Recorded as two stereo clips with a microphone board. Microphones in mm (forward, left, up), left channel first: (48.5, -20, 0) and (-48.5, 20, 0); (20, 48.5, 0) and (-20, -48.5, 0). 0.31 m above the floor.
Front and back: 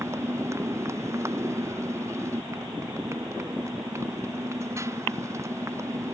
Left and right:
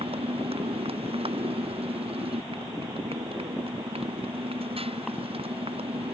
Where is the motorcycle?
140° right.